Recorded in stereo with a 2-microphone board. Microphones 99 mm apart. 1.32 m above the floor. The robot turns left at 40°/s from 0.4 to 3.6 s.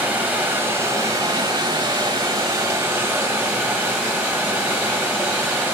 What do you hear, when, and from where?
0.0 s running water: 30° right, 1.4 m; by 5.8 s 155° right, 1.4 m